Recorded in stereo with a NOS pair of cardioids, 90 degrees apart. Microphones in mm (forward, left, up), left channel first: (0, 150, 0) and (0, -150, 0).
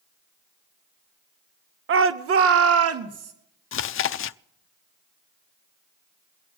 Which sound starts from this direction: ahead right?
A shout, at 1.9 s.